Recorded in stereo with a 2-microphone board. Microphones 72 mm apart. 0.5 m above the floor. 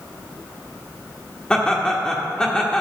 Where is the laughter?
10° left (ahead or behind), 1.2 m.